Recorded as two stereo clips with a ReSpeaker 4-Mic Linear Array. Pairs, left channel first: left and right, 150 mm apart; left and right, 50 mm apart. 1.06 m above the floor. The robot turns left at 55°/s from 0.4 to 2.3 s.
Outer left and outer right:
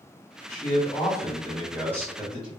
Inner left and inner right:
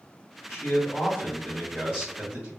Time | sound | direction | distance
0.5 | a man speaking | 60° left | 1.7 m